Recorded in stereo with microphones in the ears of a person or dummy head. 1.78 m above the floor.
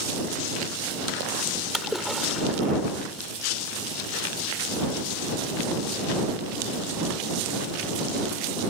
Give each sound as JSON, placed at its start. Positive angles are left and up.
{"t": 1.7, "sound": "a splash", "side_deg": 0}